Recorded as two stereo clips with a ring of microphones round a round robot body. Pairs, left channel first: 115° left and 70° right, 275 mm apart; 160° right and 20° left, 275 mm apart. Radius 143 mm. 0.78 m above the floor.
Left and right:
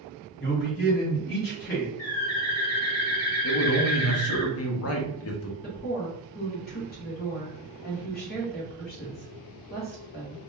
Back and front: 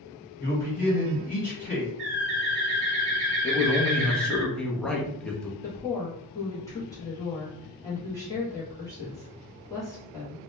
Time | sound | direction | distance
0.4 | a man speaking | 145° left | 1.6 m
2.0 | a bird | 70° left | 0.8 m
3.4 | a man speaking | 115° left | 0.6 m
5.6 | a woman speaking | 135° left | 0.9 m